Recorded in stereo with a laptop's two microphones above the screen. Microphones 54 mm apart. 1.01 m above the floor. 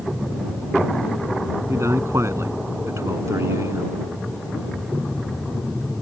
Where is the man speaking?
65° right (ahead or behind).